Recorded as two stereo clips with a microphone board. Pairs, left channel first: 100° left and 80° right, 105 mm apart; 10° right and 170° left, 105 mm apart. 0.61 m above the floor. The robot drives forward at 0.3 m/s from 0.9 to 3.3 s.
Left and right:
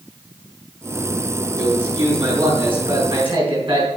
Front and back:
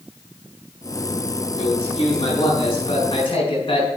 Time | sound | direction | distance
1.6 | a man speaking | 40° right | 4.5 m